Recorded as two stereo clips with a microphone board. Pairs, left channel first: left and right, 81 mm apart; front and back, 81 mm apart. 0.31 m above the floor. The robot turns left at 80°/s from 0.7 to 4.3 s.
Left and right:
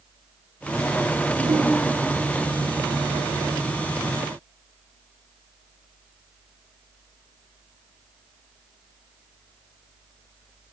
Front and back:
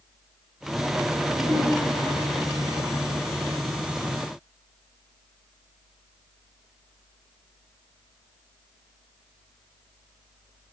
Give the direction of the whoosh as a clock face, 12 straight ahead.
2 o'clock.